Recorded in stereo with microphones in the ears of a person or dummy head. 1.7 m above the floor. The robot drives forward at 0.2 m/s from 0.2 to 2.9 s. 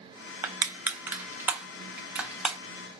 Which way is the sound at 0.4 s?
15° right (ahead or behind).